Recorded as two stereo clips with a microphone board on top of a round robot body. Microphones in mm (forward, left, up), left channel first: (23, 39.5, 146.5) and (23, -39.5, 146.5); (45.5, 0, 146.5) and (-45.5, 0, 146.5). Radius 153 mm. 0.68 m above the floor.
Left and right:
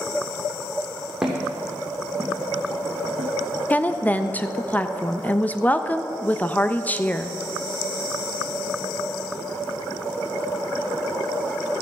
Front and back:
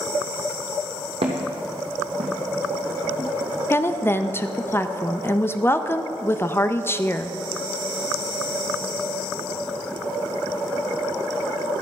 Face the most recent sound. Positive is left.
turn(degrees=35)